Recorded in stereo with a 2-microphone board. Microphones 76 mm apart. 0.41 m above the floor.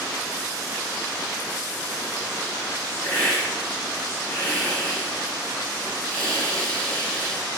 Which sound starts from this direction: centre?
A hiss, at 3.0 s.